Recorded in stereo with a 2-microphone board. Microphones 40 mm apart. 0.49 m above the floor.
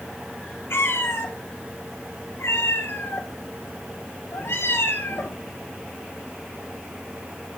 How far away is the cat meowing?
About 1.8 m.